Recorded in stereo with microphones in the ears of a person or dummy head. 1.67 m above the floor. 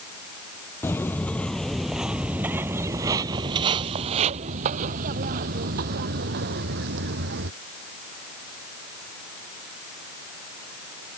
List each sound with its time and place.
0.8 s footsteps: 15° left (ahead or behind); by 7.5 s 65° right (ahead or behind)